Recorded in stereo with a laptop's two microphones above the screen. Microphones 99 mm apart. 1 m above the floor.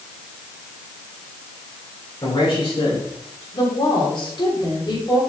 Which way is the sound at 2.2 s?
45° left (ahead or behind).